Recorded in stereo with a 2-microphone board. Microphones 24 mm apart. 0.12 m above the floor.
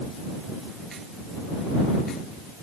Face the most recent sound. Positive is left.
No sound to turn to.